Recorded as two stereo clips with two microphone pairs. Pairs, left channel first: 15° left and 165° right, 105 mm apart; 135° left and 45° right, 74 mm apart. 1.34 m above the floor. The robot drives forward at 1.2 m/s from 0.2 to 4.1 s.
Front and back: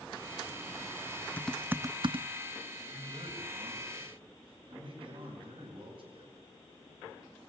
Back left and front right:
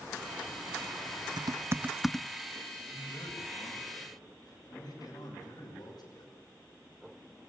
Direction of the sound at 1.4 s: 55° right.